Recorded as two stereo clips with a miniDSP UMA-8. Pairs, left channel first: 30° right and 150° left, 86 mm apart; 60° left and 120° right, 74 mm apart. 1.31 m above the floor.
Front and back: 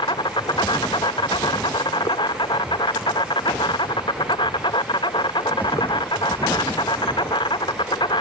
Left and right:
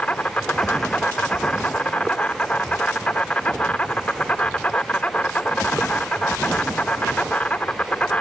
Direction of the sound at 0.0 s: 10° right.